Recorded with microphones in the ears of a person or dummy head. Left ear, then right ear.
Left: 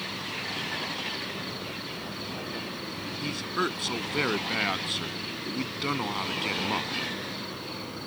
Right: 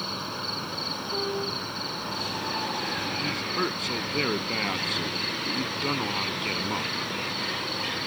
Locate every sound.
0.0 s an insect: 25° right (ahead or behind)
3.2 s a man speaking: 20° left (ahead or behind)